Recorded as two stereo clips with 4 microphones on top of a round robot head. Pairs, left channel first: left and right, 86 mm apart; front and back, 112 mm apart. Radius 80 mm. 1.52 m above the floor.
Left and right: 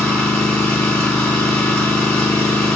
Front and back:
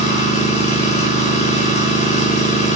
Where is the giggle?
No giggle in this recording.